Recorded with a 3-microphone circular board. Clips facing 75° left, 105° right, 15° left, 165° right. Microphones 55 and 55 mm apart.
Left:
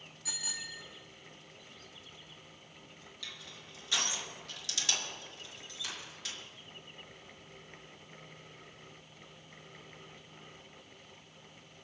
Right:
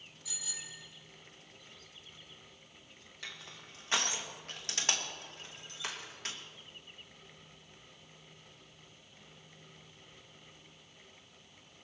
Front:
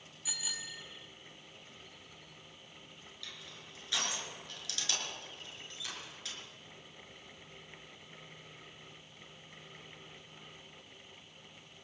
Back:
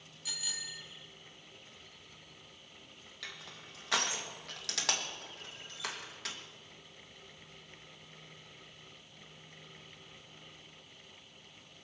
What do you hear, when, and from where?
0.2 s a bicycle bell: 90° left, 2.5 m
3.2 s crushing: 155° right, 2.5 m